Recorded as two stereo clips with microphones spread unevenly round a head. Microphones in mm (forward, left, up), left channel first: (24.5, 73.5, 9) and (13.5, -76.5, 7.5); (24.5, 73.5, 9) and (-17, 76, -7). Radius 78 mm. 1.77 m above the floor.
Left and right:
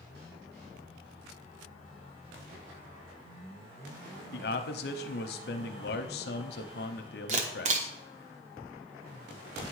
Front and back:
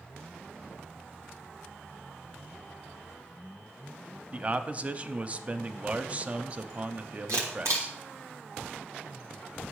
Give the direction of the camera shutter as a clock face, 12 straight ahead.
5 o'clock.